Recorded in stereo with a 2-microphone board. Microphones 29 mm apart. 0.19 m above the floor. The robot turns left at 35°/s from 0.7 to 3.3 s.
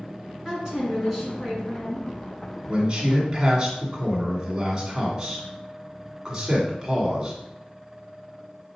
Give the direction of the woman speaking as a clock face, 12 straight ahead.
5 o'clock.